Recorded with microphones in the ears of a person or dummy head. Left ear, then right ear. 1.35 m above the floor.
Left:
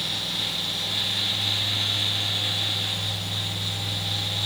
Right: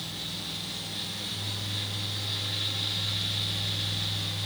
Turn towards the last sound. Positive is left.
No sound to turn to.